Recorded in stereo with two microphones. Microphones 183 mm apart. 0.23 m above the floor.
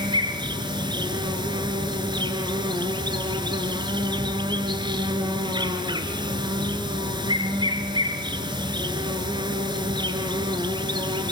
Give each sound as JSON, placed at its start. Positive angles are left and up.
{"t": 0.0, "sound": "an insect", "side_deg": -25, "distance_m": 2.5}